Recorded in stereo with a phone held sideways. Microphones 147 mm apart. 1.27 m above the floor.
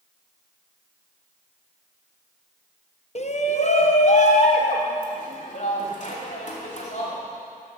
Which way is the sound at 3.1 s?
50° left (ahead or behind).